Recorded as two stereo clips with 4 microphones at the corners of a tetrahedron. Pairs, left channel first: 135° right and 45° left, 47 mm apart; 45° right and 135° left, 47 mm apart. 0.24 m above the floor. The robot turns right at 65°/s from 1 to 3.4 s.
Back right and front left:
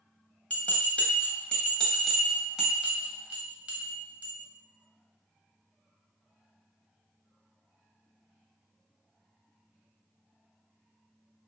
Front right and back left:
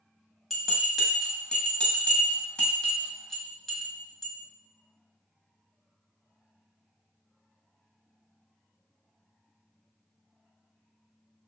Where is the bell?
130° right, 0.9 m; by 4.3 s 30° left, 0.9 m.